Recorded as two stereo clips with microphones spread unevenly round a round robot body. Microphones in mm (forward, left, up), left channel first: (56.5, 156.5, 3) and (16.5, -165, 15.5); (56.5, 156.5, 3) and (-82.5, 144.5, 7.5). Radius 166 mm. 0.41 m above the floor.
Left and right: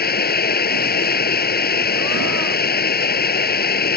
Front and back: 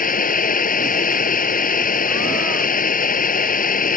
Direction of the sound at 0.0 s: 20° left.